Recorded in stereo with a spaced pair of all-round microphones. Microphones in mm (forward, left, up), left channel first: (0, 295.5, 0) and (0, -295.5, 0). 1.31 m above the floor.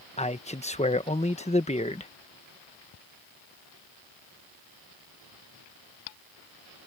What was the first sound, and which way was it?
A man speaking, 10° left (ahead or behind).